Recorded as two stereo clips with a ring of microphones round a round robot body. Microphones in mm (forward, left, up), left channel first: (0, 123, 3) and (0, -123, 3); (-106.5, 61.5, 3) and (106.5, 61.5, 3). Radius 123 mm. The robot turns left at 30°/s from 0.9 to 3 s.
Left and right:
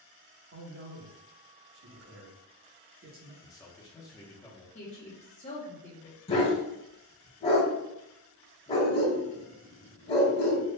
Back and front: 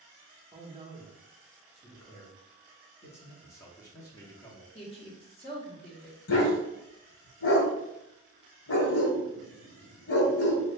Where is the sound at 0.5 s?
65° right, 0.9 m; by 3.3 s 125° right, 0.9 m.